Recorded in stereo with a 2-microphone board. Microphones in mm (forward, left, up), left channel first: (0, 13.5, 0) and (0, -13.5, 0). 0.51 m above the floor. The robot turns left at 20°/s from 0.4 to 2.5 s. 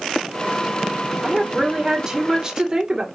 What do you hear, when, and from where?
1.2 s a woman speaking: 20° right (ahead or behind), 1.5 m; by 3.1 s 30° right (ahead or behind), 1.5 m